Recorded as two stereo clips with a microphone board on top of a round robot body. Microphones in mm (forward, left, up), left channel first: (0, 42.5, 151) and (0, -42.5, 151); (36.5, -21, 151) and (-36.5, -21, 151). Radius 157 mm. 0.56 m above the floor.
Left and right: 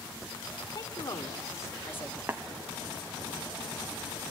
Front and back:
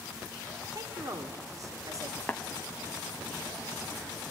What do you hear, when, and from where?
0.8 s a woman speaking: 135° left, 2.5 m; by 2.2 s 160° left, 1.6 m
2.3 s tapping: 55° right, 1.4 m